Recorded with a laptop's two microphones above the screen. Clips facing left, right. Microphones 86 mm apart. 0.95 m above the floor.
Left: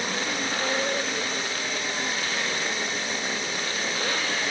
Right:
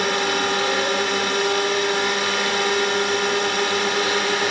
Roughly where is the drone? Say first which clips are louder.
Right 8 dB; right.